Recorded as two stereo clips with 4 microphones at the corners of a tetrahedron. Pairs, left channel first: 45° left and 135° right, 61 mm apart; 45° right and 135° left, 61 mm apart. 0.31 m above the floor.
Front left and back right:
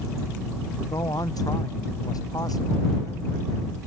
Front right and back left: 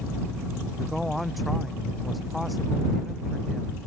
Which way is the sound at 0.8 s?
45° left.